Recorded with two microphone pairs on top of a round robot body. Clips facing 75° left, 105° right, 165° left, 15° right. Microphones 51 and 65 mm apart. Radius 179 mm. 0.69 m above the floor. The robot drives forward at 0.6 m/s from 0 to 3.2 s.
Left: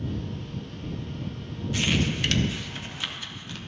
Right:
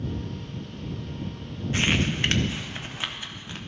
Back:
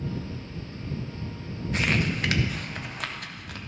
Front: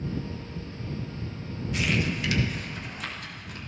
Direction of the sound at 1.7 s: 160° right.